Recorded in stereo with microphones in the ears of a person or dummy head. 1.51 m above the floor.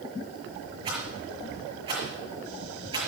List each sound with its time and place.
0.8 s a rattle: 25° right (ahead or behind), 6 m